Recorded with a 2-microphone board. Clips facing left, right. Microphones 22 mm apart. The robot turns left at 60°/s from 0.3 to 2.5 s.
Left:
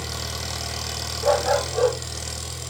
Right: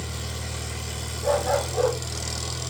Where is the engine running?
120° left, 2.5 m; by 2.7 s 10° right, 2.5 m.